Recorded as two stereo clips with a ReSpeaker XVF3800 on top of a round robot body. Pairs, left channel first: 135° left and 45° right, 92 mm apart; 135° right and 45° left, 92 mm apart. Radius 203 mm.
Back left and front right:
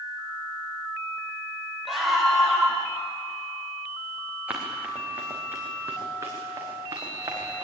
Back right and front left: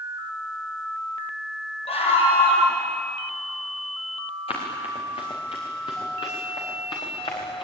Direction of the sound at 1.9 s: 135° right.